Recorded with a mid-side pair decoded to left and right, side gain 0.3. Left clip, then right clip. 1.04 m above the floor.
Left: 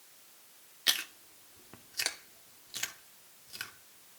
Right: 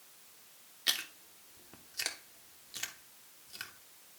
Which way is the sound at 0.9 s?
35° left.